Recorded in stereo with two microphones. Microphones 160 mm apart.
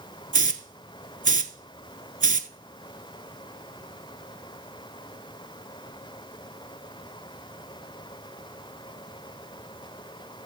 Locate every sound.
0.3 s a hiss: 55° right (ahead or behind), 0.5 m